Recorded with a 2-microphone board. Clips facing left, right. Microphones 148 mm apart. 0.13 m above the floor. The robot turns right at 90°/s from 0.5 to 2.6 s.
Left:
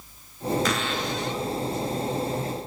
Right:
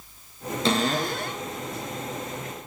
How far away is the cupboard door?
About 2 m.